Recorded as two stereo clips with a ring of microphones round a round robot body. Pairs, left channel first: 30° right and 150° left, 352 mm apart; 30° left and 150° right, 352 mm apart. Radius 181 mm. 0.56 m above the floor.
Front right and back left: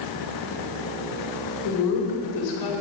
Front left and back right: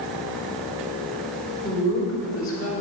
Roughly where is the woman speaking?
Ahead right.